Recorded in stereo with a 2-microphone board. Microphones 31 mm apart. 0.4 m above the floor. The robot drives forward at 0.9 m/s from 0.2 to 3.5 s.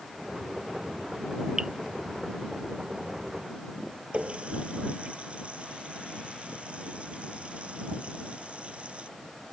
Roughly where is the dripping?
Right.